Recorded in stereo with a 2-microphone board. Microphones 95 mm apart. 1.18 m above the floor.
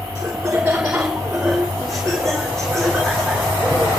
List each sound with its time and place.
0.1 s laughter: 15° right (ahead or behind), 4 m; by 3.9 s 10° left (ahead or behind), 6 m